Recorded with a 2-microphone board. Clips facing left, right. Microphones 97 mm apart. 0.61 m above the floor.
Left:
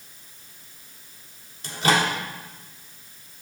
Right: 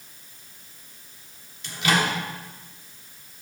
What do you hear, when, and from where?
1.6 s a microwave: 40° left (ahead or behind), 1.3 m